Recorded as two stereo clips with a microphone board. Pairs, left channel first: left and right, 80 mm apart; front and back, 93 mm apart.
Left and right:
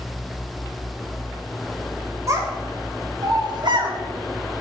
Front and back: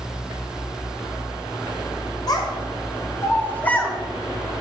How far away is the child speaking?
About 1.8 m.